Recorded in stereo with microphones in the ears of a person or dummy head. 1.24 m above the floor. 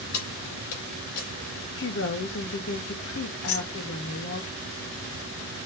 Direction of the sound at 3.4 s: 75° left (ahead or behind).